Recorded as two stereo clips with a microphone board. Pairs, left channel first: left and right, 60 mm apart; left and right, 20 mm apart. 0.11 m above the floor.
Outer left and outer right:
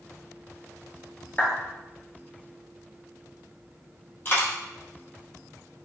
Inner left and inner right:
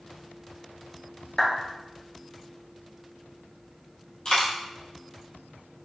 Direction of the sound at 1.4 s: 35° left (ahead or behind).